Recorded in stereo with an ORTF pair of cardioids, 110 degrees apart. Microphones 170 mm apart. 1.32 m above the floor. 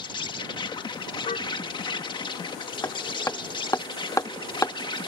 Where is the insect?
30° left.